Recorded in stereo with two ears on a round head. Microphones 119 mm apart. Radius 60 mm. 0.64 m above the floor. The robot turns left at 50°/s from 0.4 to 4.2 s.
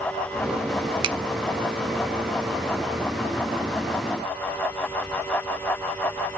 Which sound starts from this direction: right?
A finger snap, at 1.0 s.